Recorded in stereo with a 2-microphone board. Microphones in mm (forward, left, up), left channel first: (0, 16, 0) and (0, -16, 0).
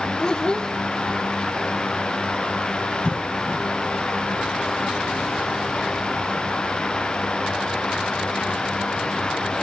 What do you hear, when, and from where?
0.2 s a child speaking: 25° left (ahead or behind), 0.6 m
3.0 s a cough: 35° left (ahead or behind), 7 m